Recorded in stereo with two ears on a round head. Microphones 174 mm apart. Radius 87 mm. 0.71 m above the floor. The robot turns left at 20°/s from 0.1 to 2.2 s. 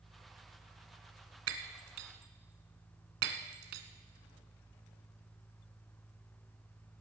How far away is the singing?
No singing in this recording.